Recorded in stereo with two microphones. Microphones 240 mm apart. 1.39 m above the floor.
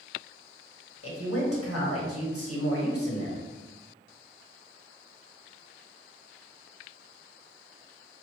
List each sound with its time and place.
1.0 s a woman speaking: 80° left, 1.3 m